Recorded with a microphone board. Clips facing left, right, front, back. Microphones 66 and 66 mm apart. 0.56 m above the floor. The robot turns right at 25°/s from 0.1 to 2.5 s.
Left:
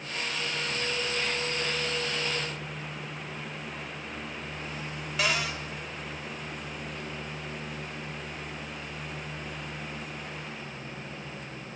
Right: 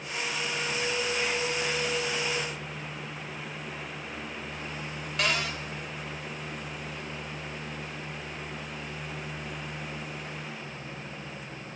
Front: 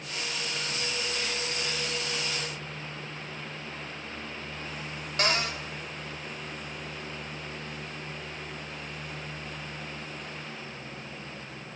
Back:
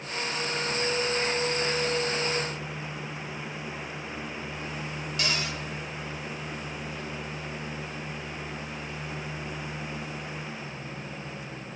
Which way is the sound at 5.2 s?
5° left.